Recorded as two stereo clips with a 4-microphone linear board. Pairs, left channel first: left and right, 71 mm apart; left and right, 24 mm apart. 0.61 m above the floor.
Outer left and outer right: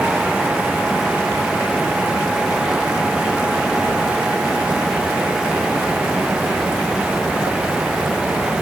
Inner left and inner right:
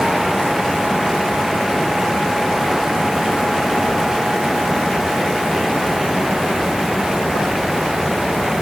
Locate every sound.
Only background noise.